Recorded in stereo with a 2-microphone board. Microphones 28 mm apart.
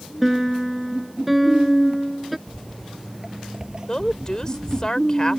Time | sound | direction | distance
0.2 | a piano | 5° right (ahead or behind) | ?
2.5 | footsteps | 5° left (ahead or behind) | ?
3.9 | a woman speaking | 25° left (ahead or behind) | ?